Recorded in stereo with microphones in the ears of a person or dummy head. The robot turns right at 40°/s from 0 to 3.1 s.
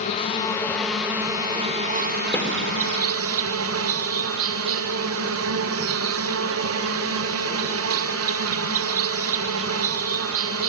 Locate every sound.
0.0 s an insect: 145° left, 1.1 m; by 10.7 s 90° right, 1.1 m
2.3 s a snare drum: 15° left (ahead or behind), 2 m; by 2.5 s 10° left (ahead or behind), 2 m